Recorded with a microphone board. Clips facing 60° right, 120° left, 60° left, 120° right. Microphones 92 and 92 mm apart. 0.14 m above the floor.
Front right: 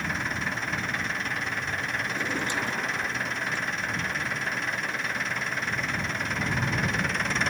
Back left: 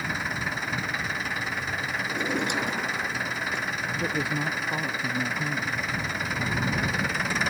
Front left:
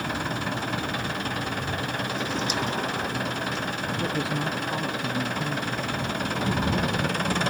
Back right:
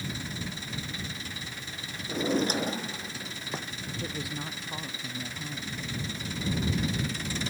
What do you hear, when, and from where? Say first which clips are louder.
0.0 s an engine running: even, front left 9 dB; 35° left
2.1 s a drawer: back left 5 dB, back right 6 dB; 170° right
4.0 s a woman speaking: back left 3 dB, front left 9 dB; 125° left